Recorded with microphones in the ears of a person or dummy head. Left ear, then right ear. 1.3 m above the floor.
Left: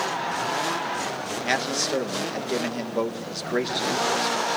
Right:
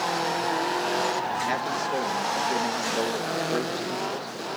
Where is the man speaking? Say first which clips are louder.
Left 2 dB; 30° left (ahead or behind), 1.6 m.